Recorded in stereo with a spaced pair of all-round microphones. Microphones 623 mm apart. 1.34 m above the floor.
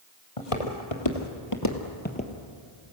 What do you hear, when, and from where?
0.4 s footsteps: 55° left (ahead or behind), 2.5 m; by 2.3 s 5° left (ahead or behind), 1.8 m